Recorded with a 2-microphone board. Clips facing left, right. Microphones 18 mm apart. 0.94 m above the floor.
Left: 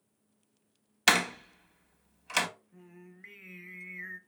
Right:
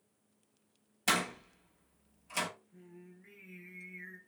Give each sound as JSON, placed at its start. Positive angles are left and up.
{"t": 1.1, "sound": "a door slam", "side_deg": 50, "distance_m": 0.6}
{"t": 2.7, "sound": "singing", "side_deg": 45, "distance_m": 0.7}